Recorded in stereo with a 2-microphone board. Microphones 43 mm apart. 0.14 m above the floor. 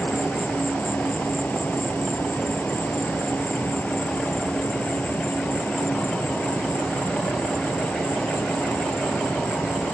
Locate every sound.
0.0 s an insect: 50° left (ahead or behind)